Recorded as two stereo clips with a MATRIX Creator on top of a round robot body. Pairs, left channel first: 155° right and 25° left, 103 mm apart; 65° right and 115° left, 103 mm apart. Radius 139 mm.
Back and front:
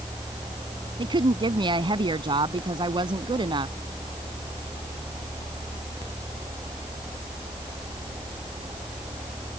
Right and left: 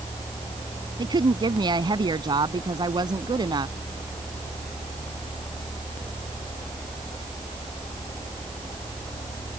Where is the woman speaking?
65° left.